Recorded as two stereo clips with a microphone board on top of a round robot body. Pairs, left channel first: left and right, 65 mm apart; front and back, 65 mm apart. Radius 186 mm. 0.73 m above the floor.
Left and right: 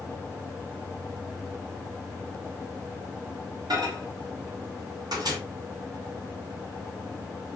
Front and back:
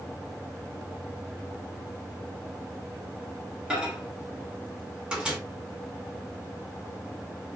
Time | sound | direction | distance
3.7 | a microwave | 105° right | 2 m